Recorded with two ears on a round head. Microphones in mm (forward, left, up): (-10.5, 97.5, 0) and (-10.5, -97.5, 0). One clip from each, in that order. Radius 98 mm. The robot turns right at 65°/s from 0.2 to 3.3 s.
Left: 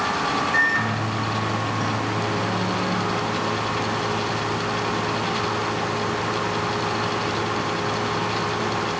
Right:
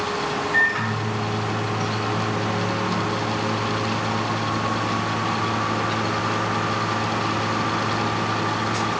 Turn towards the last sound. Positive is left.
turn(degrees=-15)